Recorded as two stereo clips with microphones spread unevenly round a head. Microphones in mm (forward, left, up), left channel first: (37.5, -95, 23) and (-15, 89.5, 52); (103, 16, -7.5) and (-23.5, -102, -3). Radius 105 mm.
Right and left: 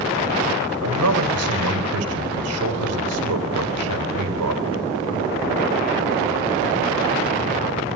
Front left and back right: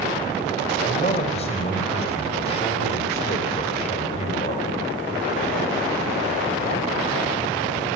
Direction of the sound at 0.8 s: 105° left.